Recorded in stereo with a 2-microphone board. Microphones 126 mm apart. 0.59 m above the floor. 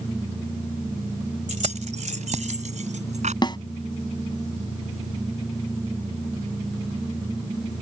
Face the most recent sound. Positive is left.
turn(degrees=35)  # may be behind; listen again after turning